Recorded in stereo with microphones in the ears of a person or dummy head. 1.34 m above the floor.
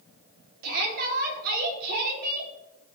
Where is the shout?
50° right (ahead or behind), 4 m.